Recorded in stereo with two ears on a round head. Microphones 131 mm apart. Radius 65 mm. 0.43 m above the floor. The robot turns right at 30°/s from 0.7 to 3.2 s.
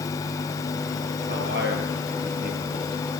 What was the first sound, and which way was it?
A man speaking, 100° right.